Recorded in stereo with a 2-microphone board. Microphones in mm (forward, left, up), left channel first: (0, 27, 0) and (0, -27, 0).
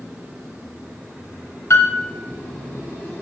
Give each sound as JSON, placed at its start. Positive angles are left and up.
{"t": 1.7, "sound": "a piano", "side_deg": 55, "distance_m": 0.7}